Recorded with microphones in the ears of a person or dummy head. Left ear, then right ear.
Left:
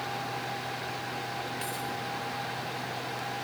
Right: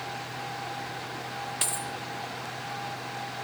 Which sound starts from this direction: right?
A dropped coin, at 1.6 s.